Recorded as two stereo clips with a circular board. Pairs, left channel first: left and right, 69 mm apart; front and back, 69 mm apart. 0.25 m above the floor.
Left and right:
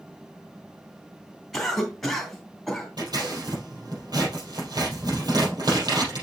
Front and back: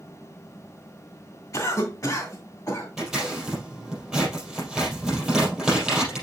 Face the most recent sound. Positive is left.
turn(degrees=-95)